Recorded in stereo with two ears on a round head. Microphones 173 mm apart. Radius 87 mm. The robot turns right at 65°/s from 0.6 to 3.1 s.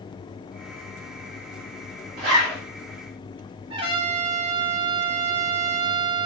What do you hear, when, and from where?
2.2 s a zipper: 50° right (ahead or behind), 1.7 m; by 2.6 s 25° right (ahead or behind), 1.7 m
3.7 s a trumpet: 25° right (ahead or behind), 0.7 m